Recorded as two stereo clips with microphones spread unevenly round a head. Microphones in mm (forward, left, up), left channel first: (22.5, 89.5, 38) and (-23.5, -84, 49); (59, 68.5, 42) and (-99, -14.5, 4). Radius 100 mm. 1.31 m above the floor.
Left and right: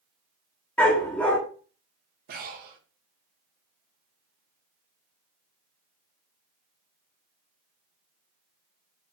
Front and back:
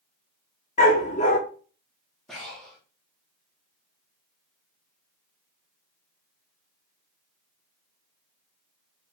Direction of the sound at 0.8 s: 10° right.